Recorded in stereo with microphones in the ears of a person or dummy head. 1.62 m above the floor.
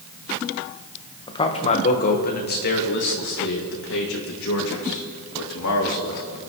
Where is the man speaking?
30° left (ahead or behind), 1.2 m; by 6.4 s 85° left, 3.5 m.